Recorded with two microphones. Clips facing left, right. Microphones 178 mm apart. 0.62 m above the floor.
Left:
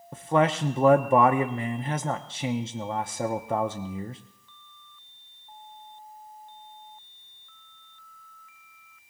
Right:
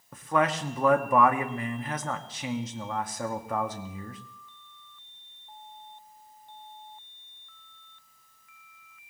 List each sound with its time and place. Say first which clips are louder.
0.1 s a man speaking: left 3 dB; 25° left (ahead or behind), 0.6 m